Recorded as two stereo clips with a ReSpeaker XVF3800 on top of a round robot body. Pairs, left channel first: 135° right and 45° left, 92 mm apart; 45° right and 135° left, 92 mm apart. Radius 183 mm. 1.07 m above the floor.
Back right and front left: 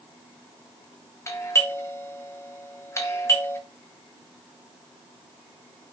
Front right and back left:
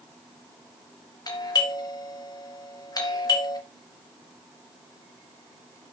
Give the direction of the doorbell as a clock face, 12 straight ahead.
3 o'clock.